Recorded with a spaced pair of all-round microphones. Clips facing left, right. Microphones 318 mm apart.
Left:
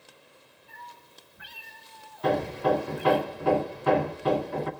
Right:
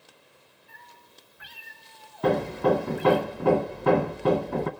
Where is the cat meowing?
70° left (ahead or behind), 2 m; by 3.2 s 35° right (ahead or behind), 1.2 m.